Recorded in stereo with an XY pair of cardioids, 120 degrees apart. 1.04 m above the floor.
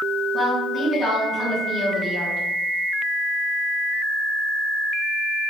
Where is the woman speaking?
25° left, 1.9 m.